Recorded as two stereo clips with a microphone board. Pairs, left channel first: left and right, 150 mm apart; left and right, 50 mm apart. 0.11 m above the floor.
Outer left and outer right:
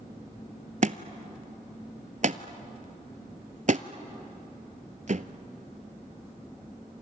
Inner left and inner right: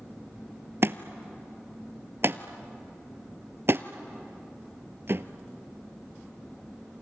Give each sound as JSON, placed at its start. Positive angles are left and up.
{"t": 0.8, "sound": "a thud", "side_deg": -55, "distance_m": 0.8}